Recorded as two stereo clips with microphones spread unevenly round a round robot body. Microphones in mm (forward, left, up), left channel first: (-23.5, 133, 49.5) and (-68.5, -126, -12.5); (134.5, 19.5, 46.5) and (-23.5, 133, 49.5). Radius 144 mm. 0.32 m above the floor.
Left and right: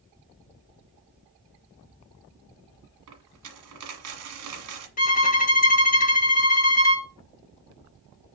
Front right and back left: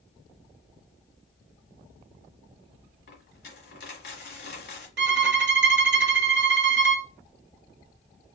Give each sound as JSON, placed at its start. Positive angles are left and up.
{"t": 3.1, "sound": "a dropped coin", "azimuth_deg": -75, "distance_m": 1.4}
{"t": 5.0, "sound": "a violin", "azimuth_deg": 145, "distance_m": 0.7}